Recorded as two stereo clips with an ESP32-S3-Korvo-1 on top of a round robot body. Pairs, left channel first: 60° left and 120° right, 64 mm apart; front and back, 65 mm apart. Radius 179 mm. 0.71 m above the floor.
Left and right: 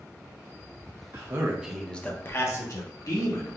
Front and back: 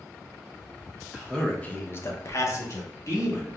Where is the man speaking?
90° right, 1.0 m; by 3.6 s 45° left, 2 m.